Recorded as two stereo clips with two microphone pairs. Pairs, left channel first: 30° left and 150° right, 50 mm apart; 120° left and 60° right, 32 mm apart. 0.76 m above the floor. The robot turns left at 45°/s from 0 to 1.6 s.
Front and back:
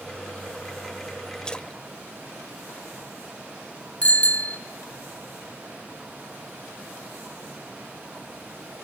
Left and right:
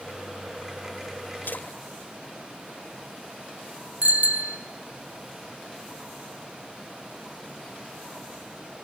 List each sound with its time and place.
1.4 s a splash: 105° left, 1.3 m; by 3.6 s 100° left, 1.3 m
4.0 s a bicycle bell: 30° right, 3 m